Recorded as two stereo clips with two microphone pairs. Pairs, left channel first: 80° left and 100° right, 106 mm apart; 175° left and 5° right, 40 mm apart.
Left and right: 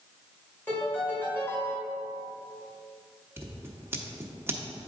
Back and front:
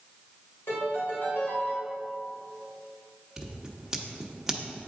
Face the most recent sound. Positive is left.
turn(degrees=-65)